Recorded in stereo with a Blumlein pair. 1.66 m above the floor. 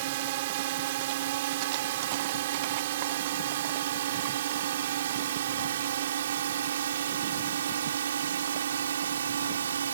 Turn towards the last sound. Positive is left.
turn(degrees=-65)